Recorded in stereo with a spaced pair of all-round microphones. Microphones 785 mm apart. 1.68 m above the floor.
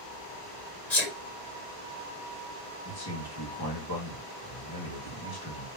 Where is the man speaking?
25° left (ahead or behind), 2.0 m.